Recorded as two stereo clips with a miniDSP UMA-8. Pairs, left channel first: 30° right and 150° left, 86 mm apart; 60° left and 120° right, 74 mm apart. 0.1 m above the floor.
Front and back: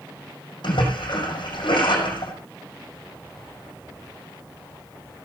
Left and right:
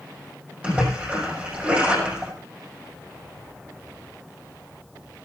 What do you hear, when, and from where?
0.6 s a splash: 45° right, 5.5 m